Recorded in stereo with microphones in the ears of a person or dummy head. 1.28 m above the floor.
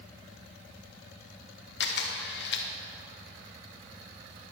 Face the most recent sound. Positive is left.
turn(degrees=55)  # may be behind; listen again after turning